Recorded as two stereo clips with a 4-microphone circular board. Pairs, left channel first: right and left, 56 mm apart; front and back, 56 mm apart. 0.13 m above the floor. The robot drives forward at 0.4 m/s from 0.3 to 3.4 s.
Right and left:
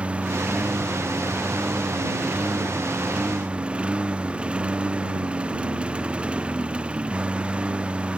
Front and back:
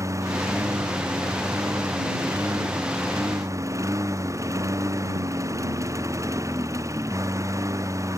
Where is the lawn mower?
160° left.